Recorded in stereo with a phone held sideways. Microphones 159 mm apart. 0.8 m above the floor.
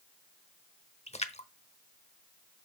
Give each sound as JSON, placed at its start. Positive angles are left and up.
{"t": 1.1, "sound": "a splash", "side_deg": 45, "distance_m": 0.9}